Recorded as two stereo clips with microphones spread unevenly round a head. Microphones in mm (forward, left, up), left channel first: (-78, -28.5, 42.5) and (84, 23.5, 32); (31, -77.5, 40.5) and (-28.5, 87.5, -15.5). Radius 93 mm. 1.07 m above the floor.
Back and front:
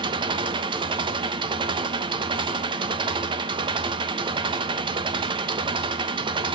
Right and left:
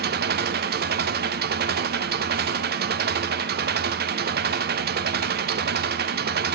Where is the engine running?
80° left, 0.8 m.